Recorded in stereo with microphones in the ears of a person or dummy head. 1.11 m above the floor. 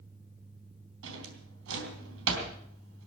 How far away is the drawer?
About 3.5 m.